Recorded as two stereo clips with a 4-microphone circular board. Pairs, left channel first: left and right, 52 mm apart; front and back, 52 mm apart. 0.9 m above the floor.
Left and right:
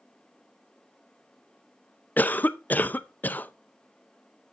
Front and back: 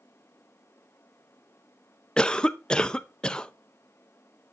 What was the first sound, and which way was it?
A cough, 65° left.